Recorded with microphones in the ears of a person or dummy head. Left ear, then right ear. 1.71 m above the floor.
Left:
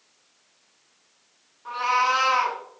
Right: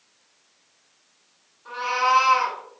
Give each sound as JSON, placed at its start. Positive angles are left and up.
{"t": 1.6, "sound": "a cat meowing", "side_deg": 45, "distance_m": 1.2}